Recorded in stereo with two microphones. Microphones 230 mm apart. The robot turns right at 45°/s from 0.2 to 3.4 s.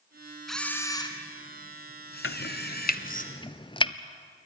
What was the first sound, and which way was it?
A camera shutter, straight ahead.